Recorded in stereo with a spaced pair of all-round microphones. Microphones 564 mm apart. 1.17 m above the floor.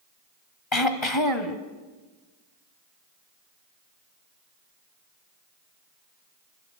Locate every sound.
0.7 s throat clearing: 55° left (ahead or behind), 1.7 m